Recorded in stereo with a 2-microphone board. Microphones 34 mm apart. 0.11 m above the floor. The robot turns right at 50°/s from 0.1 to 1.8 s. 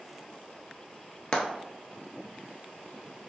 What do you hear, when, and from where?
1.3 s frying: 30° left (ahead or behind), 0.6 m; by 1.4 s 25° left (ahead or behind), 0.6 m